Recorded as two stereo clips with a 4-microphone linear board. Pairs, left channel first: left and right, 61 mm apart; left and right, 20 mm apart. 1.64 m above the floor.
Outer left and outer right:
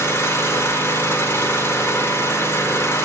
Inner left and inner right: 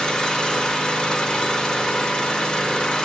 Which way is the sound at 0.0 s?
40° left (ahead or behind).